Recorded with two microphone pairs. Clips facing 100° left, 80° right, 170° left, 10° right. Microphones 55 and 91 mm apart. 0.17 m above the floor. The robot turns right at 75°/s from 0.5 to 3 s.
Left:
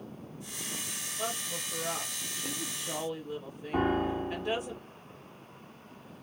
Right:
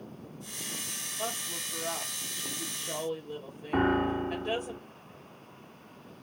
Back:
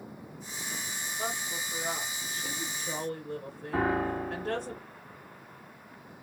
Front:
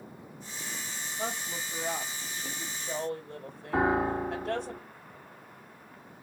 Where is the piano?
65° right, 0.8 m.